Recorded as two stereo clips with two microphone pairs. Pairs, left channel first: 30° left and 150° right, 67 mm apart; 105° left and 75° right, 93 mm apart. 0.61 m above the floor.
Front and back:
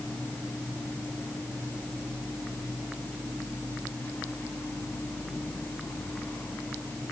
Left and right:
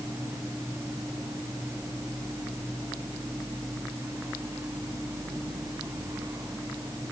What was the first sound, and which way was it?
Only background noise.